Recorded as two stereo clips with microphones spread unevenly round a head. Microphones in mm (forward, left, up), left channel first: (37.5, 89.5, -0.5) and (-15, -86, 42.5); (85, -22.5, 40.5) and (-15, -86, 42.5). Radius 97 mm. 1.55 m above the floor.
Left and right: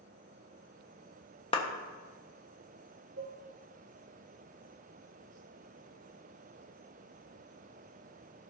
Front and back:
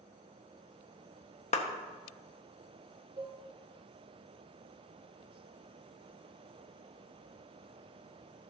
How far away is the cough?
No cough in this recording.